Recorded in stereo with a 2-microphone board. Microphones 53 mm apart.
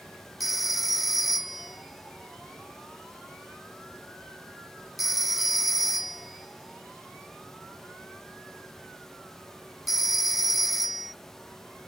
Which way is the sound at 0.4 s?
5° right (ahead or behind).